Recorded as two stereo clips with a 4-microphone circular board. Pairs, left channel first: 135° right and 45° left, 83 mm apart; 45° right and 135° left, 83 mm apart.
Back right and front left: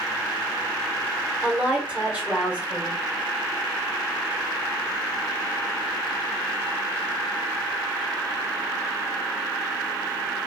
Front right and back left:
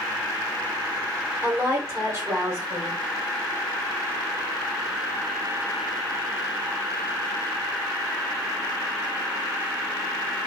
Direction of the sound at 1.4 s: 105° left.